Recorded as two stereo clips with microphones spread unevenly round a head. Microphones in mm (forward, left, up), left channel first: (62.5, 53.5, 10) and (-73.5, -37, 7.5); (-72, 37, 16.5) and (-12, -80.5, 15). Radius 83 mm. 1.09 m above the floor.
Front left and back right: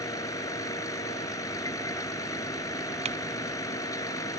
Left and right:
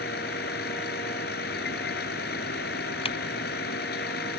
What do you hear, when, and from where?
0.0 s a vehicle: 105° left
3.0 s typing on a keyboard: 160° left